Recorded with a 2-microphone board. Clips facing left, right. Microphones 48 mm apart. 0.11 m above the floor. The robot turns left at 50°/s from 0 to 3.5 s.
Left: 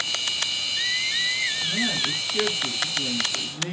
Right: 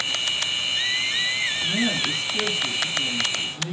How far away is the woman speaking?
About 2 m.